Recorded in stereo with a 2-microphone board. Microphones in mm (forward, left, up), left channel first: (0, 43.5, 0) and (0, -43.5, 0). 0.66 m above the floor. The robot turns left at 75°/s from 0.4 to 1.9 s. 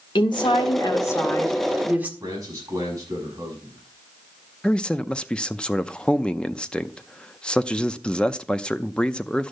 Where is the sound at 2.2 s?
40° right (ahead or behind), 6 m.